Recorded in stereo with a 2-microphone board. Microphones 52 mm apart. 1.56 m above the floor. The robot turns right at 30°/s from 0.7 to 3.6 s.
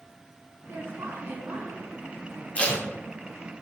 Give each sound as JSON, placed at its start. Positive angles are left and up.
{"t": 0.7, "sound": "a woman speaking", "azimuth_deg": -60, "distance_m": 0.9}
{"t": 2.5, "sound": "tape being pulled", "side_deg": 25, "distance_m": 0.6}